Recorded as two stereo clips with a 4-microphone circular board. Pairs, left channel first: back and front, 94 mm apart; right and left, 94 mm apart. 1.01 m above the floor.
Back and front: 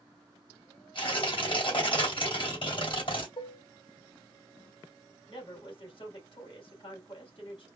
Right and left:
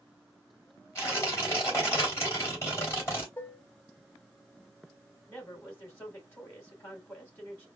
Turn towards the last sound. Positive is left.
turn(degrees=-155)